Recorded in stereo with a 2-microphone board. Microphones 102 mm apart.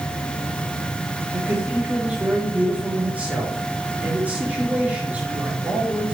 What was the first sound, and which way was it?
A man speaking, 15° right (ahead or behind).